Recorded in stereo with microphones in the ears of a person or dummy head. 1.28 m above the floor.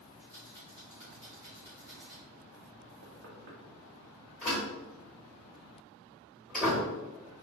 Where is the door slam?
5° left (ahead or behind), 1.3 m.